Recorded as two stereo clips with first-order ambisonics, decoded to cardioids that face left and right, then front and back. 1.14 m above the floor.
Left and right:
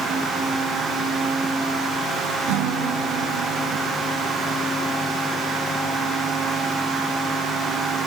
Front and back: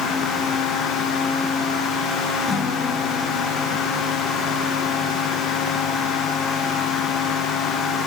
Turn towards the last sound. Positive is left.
turn(degrees=-80)